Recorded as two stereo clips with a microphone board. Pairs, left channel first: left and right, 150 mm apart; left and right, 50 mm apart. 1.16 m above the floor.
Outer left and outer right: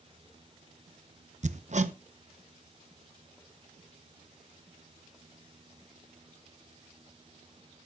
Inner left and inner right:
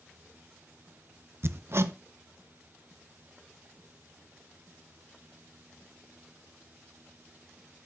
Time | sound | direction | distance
1.4 | hammering | 50° right (ahead or behind) | 0.7 m